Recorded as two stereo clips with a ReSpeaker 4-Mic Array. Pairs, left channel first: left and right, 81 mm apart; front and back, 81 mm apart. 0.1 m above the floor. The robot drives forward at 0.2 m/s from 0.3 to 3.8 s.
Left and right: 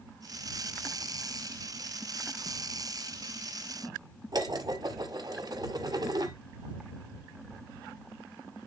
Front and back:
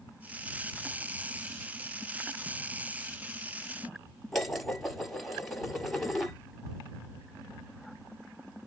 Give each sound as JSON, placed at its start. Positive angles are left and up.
{"t": 4.3, "sound": "dishes clattering", "azimuth_deg": -85, "distance_m": 1.7}